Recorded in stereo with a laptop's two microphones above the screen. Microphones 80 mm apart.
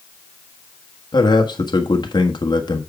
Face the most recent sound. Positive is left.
turn(degrees=55)  # may be behind; listen again after turning